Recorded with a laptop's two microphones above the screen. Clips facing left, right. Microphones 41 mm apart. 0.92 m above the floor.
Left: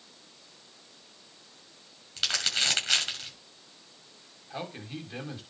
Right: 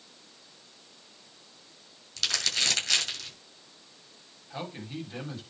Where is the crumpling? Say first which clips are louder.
Left 1 dB; 25° left (ahead or behind), 6.5 m.